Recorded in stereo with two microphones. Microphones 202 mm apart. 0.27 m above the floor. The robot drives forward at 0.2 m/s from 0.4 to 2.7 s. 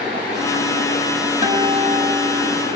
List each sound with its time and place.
1.4 s a guitar: 35° right (ahead or behind), 0.9 m; by 2.7 s 30° right (ahead or behind), 1.0 m